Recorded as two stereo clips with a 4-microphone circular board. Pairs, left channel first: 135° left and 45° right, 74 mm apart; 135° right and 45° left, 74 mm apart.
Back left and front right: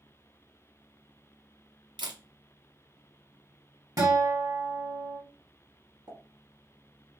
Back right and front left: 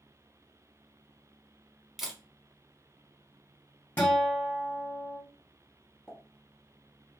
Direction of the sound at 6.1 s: 30° right.